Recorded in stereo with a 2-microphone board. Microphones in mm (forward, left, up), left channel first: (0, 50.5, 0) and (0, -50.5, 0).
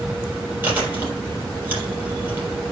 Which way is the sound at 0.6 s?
20° right (ahead or behind).